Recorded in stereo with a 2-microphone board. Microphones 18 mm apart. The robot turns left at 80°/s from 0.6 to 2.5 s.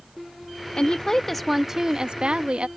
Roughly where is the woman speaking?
Ahead left.